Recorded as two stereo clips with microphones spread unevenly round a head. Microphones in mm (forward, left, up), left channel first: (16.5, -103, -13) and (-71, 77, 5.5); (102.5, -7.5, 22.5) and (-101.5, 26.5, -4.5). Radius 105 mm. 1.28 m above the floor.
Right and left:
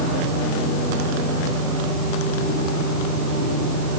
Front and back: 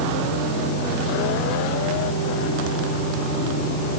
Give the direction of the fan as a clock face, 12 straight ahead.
2 o'clock.